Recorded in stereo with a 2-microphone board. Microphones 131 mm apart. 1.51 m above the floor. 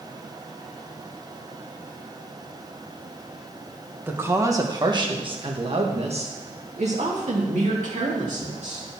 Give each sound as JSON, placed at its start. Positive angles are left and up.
{"t": 4.1, "sound": "a woman speaking", "side_deg": -15, "distance_m": 1.4}